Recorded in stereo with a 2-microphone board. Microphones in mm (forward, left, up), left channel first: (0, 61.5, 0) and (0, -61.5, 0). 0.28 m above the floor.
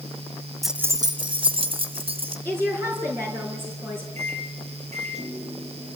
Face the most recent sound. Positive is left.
turn(degrees=-65)  # may be behind; listen again after turning